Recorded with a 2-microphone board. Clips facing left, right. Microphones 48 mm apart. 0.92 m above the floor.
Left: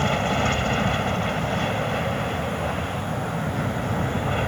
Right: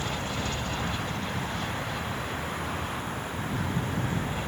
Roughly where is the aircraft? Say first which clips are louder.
Left 10 dB; left.